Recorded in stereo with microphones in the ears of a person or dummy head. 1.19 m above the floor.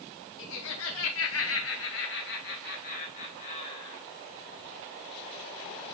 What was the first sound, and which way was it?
Laughter, 65° left (ahead or behind).